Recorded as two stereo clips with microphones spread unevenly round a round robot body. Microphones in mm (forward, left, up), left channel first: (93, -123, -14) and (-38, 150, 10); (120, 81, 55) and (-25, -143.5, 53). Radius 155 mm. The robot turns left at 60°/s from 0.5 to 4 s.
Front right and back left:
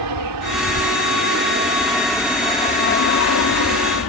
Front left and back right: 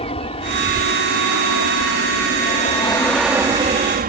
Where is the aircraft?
125° left; by 4.1 s 80° right.